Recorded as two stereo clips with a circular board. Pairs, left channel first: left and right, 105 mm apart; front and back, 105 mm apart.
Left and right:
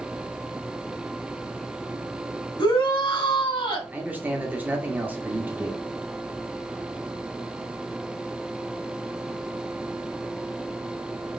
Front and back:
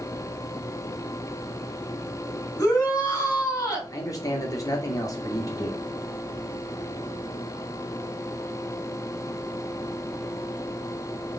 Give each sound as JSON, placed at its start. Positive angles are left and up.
{"t": 2.6, "sound": "a shout", "azimuth_deg": 55, "distance_m": 2.0}
{"t": 3.9, "sound": "a man speaking", "azimuth_deg": -25, "distance_m": 1.0}